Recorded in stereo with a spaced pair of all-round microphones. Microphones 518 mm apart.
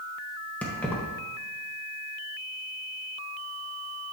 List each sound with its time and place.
0.6 s keys jangling: 5° left (ahead or behind), 1.0 m